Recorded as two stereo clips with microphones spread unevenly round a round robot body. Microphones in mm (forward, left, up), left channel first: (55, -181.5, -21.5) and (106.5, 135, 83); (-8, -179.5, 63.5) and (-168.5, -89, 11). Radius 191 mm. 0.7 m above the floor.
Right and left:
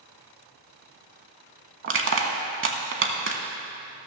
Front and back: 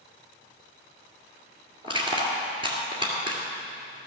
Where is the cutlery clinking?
I don't hear cutlery clinking.